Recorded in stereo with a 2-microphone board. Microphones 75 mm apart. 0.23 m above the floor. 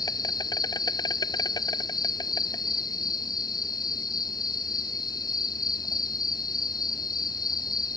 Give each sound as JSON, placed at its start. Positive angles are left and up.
{"t": 0.0, "sound": "an insect", "side_deg": 70}